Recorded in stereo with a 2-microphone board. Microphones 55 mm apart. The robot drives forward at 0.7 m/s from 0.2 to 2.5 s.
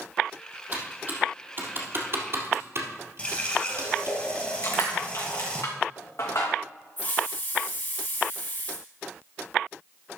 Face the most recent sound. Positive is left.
turn(degrees=35)  # may be behind; listen again after turning